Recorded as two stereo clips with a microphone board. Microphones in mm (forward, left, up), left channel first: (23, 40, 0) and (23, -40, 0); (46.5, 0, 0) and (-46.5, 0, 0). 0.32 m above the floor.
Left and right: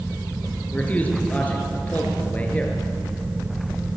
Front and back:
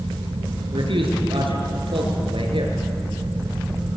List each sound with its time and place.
0.7 s a man speaking: 160° left, 6 m